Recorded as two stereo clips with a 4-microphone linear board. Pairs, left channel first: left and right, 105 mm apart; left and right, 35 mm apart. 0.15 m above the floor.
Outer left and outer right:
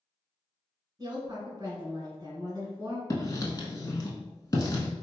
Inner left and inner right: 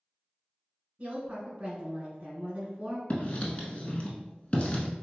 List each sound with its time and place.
1.0 s a woman speaking: 30° right (ahead or behind), 1.6 m
3.1 s writing: 35° left (ahead or behind), 0.6 m